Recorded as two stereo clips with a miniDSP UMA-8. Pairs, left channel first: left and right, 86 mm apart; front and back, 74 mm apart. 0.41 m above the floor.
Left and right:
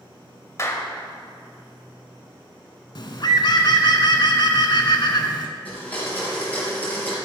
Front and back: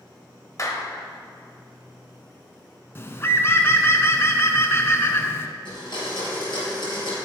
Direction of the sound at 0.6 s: 40° left.